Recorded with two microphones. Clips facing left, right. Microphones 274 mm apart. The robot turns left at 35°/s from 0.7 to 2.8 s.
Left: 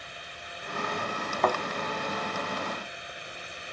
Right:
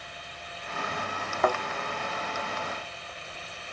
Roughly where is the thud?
Centre.